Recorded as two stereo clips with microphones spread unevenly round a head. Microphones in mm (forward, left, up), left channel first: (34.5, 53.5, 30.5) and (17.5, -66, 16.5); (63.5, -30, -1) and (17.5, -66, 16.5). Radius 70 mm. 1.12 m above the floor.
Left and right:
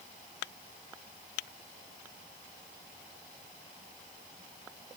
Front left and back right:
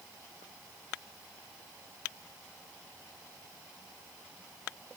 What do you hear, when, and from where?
Only background noise.